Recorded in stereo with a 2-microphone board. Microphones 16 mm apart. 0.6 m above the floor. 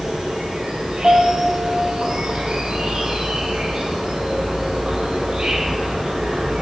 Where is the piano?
65° right (ahead or behind), 1.3 m.